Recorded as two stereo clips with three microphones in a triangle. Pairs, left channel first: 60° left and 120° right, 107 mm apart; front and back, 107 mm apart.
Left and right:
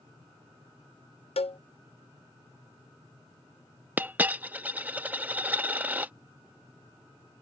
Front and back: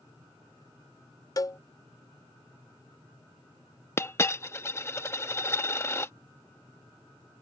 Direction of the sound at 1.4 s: 55° left.